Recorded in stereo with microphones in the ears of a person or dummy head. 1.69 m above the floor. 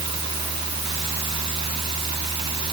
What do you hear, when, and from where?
0.0 s a fan: 25° right (ahead or behind)